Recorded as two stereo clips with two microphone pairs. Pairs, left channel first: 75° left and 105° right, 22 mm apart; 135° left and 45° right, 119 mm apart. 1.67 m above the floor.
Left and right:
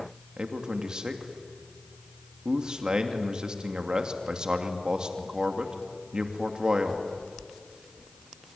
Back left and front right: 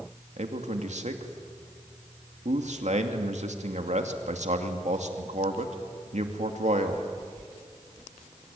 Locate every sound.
0.4 s a man speaking: 55° right, 2.5 m